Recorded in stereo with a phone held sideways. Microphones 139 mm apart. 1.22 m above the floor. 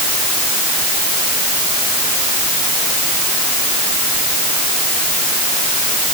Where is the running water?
No running water in this recording.